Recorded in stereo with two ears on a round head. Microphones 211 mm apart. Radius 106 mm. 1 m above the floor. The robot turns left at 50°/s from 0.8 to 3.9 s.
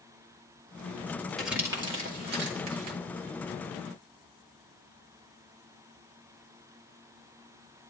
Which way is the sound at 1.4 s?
Centre (ahead or behind).